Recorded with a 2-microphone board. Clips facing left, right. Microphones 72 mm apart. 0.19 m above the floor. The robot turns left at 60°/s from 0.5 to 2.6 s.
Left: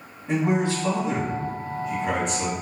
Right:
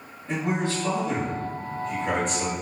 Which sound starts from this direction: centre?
A man speaking, at 0.3 s.